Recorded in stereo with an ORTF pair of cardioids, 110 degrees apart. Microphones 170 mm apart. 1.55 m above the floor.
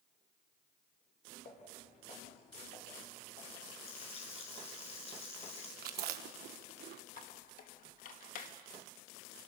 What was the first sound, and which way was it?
Footsteps, 50° left.